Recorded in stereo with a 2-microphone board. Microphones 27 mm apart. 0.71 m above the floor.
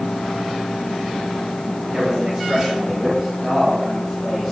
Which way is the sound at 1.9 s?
30° right (ahead or behind).